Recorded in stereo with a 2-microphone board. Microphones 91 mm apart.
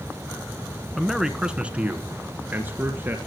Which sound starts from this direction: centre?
A man speaking, at 1.0 s.